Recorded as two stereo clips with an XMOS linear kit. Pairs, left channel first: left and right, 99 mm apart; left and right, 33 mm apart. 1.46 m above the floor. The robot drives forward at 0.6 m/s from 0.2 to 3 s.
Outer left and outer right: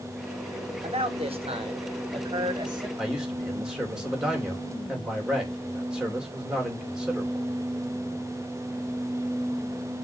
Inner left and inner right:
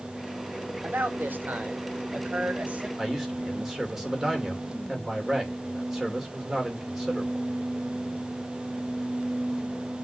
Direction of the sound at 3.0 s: 10° right (ahead or behind).